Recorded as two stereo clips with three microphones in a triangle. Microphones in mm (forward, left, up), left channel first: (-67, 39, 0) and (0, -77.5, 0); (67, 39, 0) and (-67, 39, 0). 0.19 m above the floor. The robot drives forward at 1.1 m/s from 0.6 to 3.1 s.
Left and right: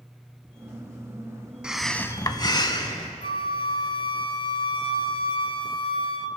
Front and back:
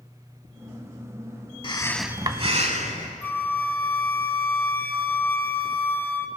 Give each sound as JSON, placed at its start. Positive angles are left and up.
{"t": 1.6, "sound": "breathing", "azimuth_deg": 20, "distance_m": 0.6}
{"t": 3.2, "sound": "a flute", "azimuth_deg": 75, "distance_m": 0.6}